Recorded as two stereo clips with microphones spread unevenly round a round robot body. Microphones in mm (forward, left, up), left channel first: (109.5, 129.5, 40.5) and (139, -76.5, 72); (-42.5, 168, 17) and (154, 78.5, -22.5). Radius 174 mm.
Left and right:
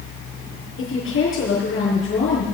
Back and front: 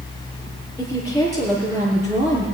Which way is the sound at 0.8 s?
80° left.